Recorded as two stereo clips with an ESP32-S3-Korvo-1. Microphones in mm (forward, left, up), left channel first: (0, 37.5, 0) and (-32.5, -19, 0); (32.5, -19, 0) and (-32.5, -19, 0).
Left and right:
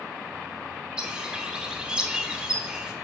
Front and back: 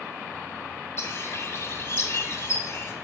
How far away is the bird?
About 1.2 m.